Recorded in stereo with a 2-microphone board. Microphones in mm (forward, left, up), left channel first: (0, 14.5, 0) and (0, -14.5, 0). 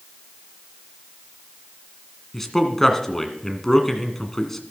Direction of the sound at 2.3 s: 10° left (ahead or behind).